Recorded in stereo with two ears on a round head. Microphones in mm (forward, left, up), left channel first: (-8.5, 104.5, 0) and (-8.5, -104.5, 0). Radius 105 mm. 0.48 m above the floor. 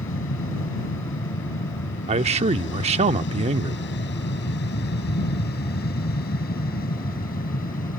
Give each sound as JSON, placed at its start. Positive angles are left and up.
{"t": 0.0, "sound": "an aircraft", "side_deg": 60}
{"t": 2.1, "sound": "a man speaking", "side_deg": -25}